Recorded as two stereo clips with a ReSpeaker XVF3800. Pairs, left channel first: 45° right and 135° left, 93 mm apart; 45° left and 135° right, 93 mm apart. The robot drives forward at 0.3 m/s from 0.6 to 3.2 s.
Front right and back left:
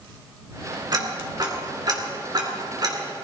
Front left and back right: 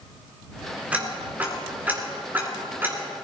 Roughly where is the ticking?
Behind left.